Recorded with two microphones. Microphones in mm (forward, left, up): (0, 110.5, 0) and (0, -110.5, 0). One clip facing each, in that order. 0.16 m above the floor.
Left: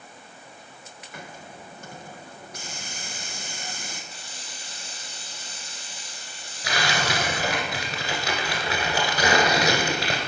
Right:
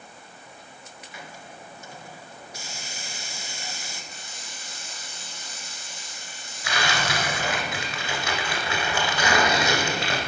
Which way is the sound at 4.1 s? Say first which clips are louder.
Even; 35° left (ahead or behind).